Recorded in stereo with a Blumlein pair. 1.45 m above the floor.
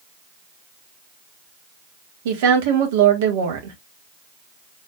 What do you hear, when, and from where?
2.2 s a woman speaking: 55° right, 1.6 m